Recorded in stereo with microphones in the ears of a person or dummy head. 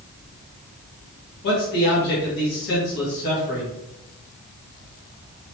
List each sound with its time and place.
1.4 s a man speaking: 55° left (ahead or behind), 1.5 m